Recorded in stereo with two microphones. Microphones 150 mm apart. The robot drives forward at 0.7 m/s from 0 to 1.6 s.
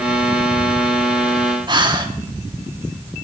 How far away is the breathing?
About 0.6 m.